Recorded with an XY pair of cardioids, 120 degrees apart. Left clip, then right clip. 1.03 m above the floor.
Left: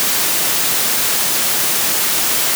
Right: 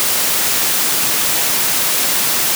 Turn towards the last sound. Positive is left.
No sound to turn to.